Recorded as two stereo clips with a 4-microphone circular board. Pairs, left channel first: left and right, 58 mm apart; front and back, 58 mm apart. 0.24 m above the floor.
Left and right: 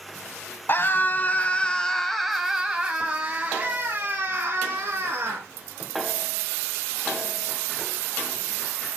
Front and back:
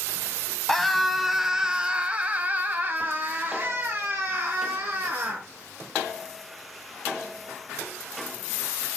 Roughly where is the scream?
Left.